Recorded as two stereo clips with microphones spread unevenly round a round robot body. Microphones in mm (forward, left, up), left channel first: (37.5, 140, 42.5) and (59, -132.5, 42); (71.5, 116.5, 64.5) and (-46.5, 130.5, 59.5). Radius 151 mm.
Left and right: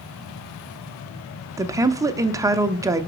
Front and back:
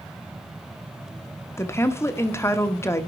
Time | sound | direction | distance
1.6 | a woman speaking | 30° right | 0.8 m